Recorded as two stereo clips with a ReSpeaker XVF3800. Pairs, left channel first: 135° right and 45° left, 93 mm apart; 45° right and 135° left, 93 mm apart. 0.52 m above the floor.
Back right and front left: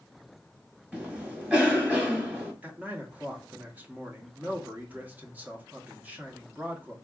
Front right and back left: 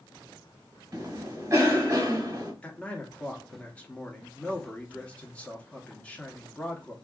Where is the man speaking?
10° left, 0.7 m.